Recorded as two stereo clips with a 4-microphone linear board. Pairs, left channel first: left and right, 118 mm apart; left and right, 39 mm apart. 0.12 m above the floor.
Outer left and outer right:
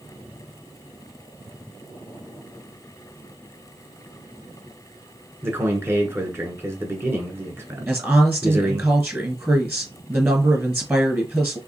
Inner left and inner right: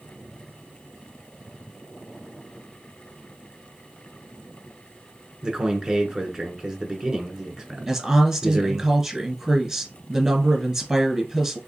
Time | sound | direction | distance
5.4 | a man speaking | 20° right (ahead or behind) | 1.2 m
7.9 | a woman speaking | 20° right (ahead or behind) | 1.3 m